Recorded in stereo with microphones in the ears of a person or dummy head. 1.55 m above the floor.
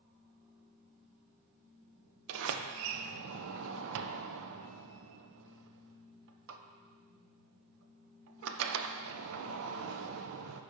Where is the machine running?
35° right (ahead or behind), 4.5 m.